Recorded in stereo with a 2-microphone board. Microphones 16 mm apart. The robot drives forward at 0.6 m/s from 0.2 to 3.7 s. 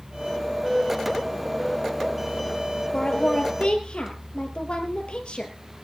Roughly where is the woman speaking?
Left.